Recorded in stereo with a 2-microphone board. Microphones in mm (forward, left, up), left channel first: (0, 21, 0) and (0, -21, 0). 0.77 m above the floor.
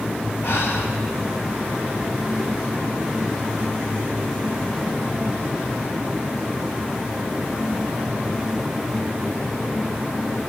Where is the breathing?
80° left, 1.6 m.